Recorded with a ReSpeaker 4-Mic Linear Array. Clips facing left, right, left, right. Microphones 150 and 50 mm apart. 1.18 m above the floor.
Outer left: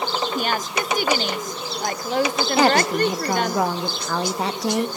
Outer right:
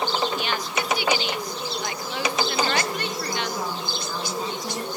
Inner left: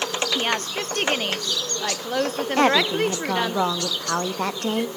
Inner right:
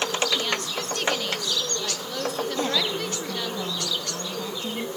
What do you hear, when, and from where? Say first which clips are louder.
0.3 s a woman speaking: outer left 3 dB, inner left 3 dB; 45° left (ahead or behind), 0.9 m
2.6 s a woman speaking: outer left 8 dB, inner left 11 dB; 65° left (ahead or behind), 1.2 m